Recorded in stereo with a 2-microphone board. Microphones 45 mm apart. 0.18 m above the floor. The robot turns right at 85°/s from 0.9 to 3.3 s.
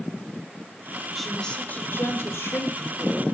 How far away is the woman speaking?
About 5.5 m.